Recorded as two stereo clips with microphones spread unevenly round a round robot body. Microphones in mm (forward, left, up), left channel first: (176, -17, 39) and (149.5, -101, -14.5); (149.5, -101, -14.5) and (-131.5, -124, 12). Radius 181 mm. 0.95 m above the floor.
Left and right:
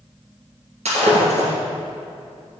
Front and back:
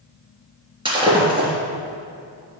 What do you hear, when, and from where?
0.8 s breaking glass: 105° right, 3 m